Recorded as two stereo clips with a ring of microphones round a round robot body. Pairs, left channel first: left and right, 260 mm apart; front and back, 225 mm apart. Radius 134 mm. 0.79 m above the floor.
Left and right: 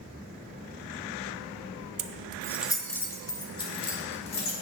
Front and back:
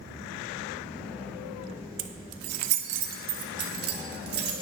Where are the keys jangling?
145° right, 0.6 m; by 4.5 s 155° left, 2 m.